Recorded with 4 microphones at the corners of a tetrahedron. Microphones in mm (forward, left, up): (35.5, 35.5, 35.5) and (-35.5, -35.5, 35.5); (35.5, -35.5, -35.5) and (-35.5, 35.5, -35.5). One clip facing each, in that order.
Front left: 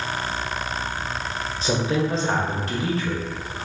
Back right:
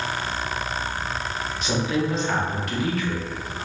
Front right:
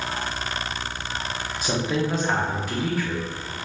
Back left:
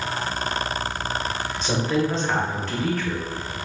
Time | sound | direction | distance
1.6 | a woman speaking | 25° left | 0.7 m